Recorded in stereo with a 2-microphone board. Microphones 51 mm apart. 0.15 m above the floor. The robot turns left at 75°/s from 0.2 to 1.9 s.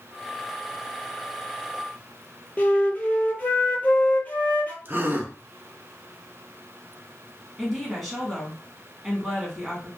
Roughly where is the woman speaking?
Centre.